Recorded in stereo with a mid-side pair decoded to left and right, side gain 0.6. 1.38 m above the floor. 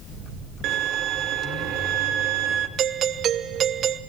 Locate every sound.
0.6 s a violin: 60° right, 2.5 m
2.8 s a doorbell: 50° right, 1.2 m